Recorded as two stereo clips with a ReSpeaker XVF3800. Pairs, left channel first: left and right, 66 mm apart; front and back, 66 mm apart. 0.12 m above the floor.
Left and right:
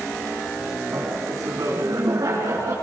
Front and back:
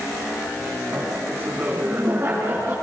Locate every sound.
0.9 s laughter: 130° right, 6 m; by 2.8 s 125° right, 5 m